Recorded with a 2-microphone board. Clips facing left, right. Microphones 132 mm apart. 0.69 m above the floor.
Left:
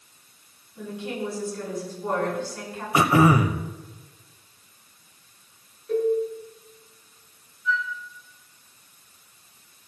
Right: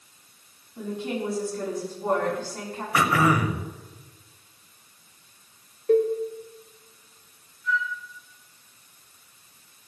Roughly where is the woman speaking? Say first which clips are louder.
Right 2 dB; right.